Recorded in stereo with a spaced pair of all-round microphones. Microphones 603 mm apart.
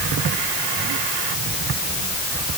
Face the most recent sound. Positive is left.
No sound to turn to.